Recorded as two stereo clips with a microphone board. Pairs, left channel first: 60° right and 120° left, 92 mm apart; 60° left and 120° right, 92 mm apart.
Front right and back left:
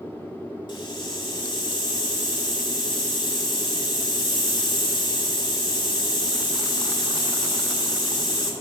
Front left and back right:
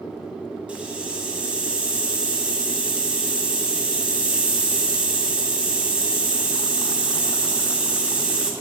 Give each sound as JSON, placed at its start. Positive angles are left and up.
{"t": 0.7, "sound": "a hiss", "azimuth_deg": -45, "distance_m": 1.3}